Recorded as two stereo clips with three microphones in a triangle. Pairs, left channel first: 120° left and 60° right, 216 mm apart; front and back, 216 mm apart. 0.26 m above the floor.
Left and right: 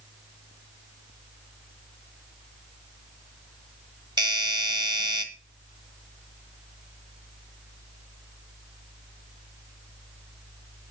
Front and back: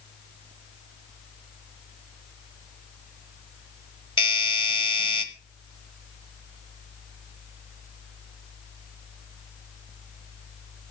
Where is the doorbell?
20° right, 1.5 m.